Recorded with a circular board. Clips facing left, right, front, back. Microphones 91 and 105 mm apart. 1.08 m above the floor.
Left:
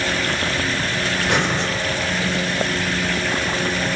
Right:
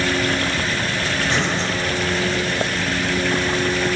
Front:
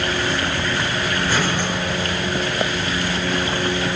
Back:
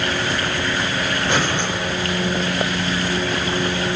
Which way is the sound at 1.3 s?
115° left.